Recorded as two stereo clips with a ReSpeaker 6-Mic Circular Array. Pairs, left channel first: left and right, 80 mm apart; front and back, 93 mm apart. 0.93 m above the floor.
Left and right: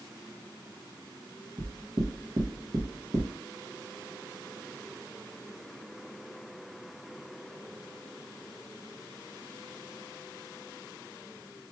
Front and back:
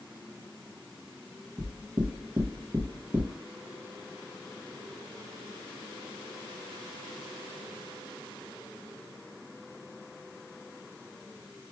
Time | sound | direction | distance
1.6 | knocking | 110° right | 0.8 m